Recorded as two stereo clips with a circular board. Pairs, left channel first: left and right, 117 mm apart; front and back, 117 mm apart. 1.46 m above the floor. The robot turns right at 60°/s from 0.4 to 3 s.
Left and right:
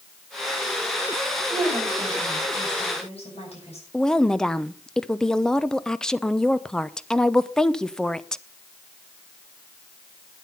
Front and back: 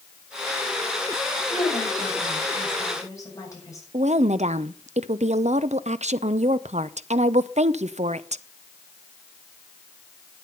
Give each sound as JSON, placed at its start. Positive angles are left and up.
{"t": 1.5, "sound": "a woman speaking", "azimuth_deg": -30, "distance_m": 8.0}
{"t": 3.9, "sound": "a woman speaking", "azimuth_deg": 175, "distance_m": 0.7}